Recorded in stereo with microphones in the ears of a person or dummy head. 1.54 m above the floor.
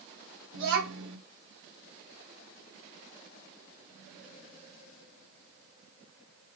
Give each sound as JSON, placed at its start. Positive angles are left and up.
{"t": 0.5, "sound": "a child speaking", "side_deg": -75, "distance_m": 3.0}